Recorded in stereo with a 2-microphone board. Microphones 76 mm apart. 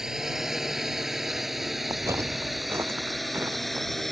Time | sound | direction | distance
0.0 | a drone | 5° right (ahead or behind) | ?
1.9 | footsteps | 50° right (ahead or behind) | ?